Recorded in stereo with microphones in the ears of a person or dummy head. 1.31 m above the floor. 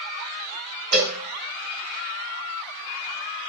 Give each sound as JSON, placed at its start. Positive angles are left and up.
{"t": 0.9, "sound": "a cowbell", "side_deg": -75, "distance_m": 2.0}